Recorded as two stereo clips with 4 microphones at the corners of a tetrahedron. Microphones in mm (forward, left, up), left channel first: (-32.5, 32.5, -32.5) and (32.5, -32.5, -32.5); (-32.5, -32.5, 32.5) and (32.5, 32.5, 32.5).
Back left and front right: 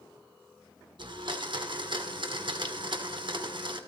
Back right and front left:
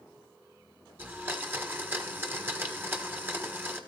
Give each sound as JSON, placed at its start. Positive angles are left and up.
{"t": 1.0, "sound": "a blender", "azimuth_deg": -20, "distance_m": 1.4}